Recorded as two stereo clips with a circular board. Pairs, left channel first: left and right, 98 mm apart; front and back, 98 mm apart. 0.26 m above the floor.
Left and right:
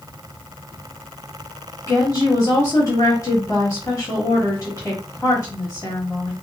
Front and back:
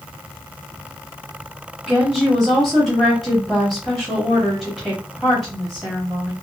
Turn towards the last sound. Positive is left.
turn(degrees=90)